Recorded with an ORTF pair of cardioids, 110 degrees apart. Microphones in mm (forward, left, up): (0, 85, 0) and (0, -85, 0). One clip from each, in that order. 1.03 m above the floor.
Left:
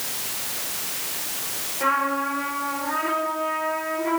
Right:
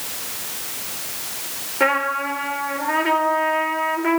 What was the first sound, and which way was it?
A trumpet, 70° right.